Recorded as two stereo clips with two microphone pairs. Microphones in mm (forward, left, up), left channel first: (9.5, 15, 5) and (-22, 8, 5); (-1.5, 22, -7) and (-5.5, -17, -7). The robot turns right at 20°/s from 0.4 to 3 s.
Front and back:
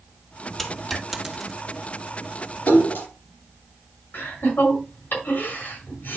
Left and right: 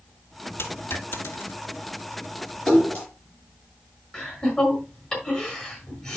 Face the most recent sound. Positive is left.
turn(degrees=15)